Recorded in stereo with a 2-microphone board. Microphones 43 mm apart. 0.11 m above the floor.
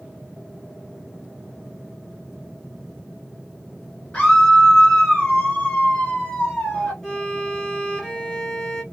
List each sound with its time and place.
4.1 s a scream: 25° left (ahead or behind), 1.7 m
7.0 s a violin: 10° left (ahead or behind), 2.0 m